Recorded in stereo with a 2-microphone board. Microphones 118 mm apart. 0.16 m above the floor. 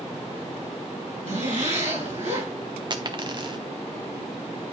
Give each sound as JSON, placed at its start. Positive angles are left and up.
{"t": 1.3, "sound": "a zipper", "side_deg": -70, "distance_m": 4.0}
{"t": 2.9, "sound": "a dropped coin", "side_deg": -35, "distance_m": 0.5}